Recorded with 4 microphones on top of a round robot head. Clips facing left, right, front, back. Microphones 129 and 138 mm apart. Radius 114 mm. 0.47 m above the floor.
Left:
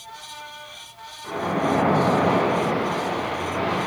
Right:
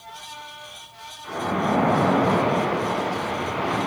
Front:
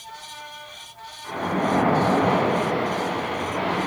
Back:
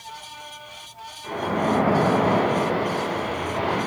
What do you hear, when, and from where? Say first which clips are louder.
1.2 s a splash: left 1 dB, back 1 dB; 140° left, 2.5 m